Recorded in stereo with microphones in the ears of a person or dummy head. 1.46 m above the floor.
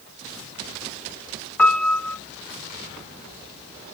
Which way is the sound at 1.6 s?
10° left (ahead or behind).